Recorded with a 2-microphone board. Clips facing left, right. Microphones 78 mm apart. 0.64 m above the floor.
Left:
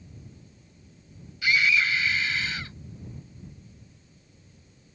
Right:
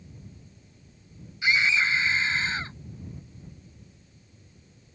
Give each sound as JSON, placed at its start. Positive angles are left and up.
{"t": 1.4, "sound": "a scream", "side_deg": -25}